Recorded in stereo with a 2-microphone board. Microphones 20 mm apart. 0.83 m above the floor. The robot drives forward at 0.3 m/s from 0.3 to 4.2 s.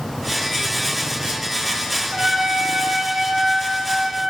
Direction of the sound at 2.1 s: 65° right (ahead or behind).